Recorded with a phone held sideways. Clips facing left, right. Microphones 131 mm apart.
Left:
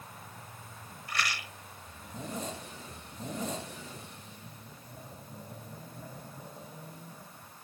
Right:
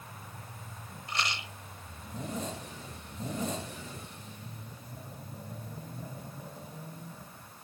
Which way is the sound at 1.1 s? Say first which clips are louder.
Even; 25° right (ahead or behind).